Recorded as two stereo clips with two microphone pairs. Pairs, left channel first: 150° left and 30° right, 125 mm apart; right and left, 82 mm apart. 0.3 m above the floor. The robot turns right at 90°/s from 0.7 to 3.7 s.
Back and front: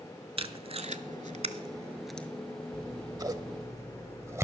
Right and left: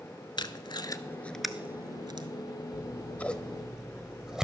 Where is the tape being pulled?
65° right, 0.6 m; by 2.3 s 75° left, 0.6 m.